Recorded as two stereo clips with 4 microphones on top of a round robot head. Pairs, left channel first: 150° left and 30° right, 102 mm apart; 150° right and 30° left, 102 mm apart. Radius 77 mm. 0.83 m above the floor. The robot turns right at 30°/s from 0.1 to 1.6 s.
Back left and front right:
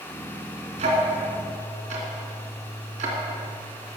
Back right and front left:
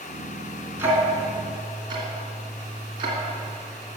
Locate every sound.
0.8 s ticking: 40° right, 2.5 m; by 3.6 s 15° right, 2.5 m